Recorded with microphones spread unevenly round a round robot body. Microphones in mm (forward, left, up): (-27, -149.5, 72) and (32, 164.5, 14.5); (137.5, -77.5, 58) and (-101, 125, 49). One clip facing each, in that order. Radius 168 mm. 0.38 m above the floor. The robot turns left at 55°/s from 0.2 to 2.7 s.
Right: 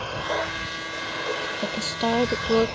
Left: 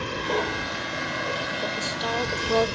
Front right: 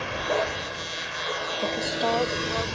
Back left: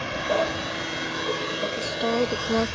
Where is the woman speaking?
120° right; by 2.8 s straight behind.